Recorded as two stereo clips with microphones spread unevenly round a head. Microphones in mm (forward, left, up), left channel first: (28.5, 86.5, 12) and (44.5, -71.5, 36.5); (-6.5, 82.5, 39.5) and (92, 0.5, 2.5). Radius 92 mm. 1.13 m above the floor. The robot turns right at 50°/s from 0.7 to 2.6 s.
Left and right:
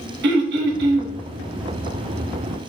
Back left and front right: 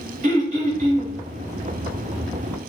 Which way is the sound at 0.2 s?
75° right.